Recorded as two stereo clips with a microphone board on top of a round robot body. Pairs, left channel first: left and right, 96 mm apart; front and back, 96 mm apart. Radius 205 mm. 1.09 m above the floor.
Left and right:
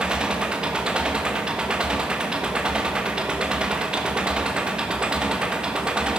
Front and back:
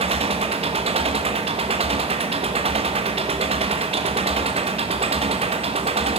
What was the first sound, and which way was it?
An engine running, 170° right.